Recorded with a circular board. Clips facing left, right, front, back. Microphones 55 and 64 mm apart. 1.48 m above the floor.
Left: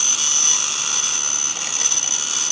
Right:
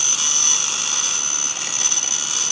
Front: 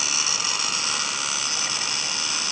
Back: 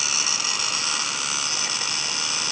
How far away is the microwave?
I don't hear a microwave.